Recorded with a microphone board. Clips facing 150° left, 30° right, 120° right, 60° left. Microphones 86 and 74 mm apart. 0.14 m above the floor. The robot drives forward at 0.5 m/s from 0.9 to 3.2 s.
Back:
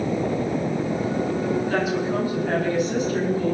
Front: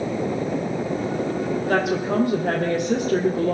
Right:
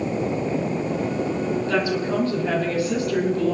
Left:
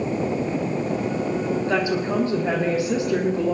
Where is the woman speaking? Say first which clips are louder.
Front 2 dB, even; 5° right, 5 m.